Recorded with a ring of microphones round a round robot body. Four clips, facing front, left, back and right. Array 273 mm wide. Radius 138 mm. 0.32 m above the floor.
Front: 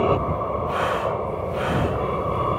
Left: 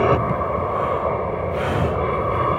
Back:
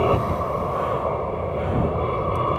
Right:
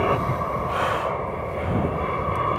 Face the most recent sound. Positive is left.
turn(degrees=90)